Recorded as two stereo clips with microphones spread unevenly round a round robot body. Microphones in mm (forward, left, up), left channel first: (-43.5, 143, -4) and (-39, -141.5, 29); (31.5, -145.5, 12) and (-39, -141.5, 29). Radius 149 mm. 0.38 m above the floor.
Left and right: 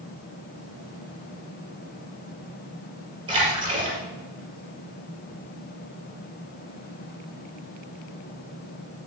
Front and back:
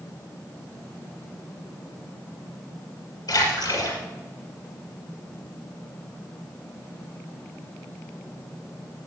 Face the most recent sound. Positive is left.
turn(degrees=-15)